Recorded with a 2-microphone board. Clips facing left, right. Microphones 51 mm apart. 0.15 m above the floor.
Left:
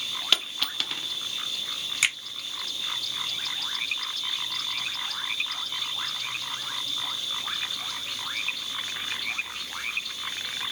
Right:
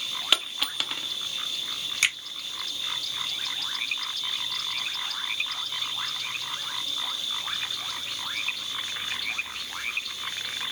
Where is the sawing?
No sawing in this recording.